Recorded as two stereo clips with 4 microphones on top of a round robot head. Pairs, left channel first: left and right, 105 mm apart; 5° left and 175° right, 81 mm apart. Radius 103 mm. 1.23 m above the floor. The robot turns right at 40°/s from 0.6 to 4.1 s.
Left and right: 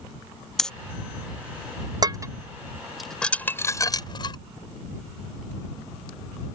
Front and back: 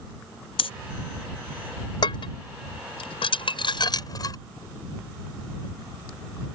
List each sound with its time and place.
0.6 s breathing: 5° left
2.0 s dishes clattering: 40° right; by 4.4 s 45° left